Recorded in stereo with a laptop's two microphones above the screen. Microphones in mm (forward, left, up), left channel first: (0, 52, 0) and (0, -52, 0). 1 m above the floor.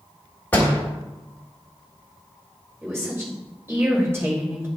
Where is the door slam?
15° left (ahead or behind), 1.6 m.